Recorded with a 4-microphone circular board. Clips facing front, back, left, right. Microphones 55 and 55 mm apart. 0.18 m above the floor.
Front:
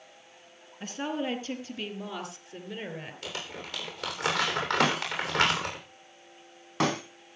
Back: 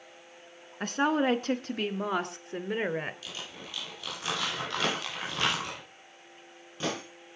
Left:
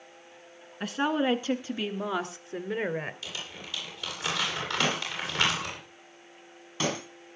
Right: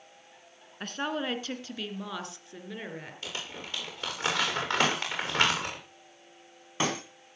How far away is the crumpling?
About 9.5 m.